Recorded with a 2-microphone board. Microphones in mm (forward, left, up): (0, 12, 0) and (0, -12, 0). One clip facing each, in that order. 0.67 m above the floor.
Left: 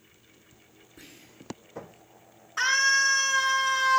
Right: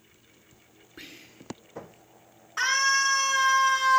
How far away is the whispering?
About 2.5 m.